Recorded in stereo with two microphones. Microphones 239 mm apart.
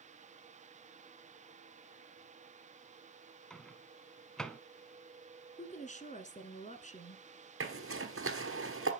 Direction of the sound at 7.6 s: 60° right (ahead or behind).